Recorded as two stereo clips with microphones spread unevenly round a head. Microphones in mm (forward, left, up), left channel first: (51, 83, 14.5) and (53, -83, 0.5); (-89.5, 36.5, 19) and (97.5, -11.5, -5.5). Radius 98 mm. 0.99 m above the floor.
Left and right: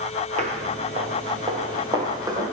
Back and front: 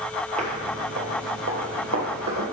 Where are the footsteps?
65° right, 1.2 m; by 2.4 s 20° right, 2 m.